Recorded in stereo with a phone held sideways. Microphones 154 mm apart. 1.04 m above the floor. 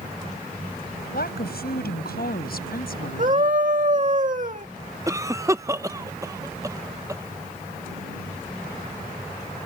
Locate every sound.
1.1 s a woman speaking: 85° left; by 3.5 s 70° left (ahead or behind)
3.2 s a scream: 55° right (ahead or behind)
5.1 s a cough: 20° right (ahead or behind)